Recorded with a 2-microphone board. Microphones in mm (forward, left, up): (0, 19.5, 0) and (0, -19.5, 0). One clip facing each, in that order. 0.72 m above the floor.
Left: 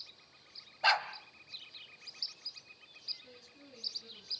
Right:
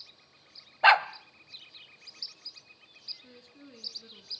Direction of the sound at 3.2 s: 35° right (ahead or behind).